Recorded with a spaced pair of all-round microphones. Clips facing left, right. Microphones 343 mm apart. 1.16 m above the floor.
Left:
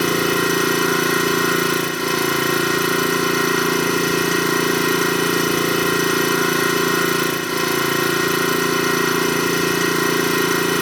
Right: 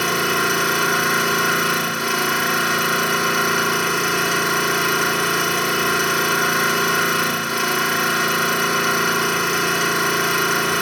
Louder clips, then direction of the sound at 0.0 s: Left 5 dB; 50° left (ahead or behind).